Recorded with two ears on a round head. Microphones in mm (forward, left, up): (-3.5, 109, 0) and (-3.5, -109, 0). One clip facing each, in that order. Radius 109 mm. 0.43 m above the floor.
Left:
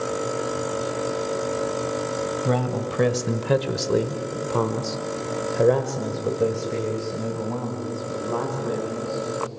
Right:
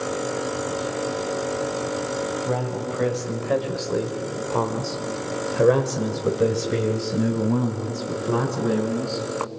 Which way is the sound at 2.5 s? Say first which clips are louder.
Left 2 dB; 65° left (ahead or behind).